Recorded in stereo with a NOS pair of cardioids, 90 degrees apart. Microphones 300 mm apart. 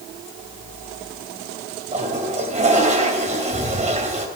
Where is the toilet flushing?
25° right, 3 m.